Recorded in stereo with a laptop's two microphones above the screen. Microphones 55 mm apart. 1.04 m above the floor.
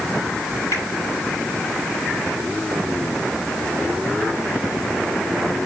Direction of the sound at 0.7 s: 60° left (ahead or behind).